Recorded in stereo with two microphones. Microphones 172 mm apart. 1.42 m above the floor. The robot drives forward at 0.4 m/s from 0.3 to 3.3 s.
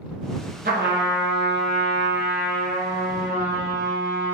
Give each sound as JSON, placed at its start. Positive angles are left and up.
{"t": 0.7, "sound": "a trumpet", "side_deg": -60, "distance_m": 0.7}